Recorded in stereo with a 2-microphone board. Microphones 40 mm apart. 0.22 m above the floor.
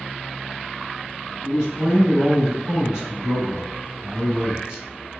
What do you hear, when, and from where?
1.4 s a man speaking: 25° right (ahead or behind), 2.0 m